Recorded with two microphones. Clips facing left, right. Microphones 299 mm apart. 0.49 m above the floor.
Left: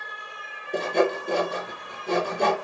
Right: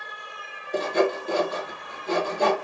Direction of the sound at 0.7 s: 35° left (ahead or behind).